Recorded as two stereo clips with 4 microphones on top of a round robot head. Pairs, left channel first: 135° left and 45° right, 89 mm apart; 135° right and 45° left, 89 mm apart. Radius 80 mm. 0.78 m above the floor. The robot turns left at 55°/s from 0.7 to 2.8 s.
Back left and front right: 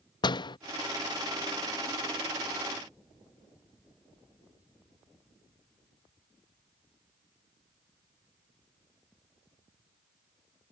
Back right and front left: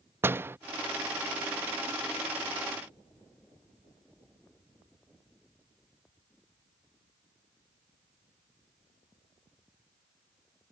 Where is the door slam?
110° left.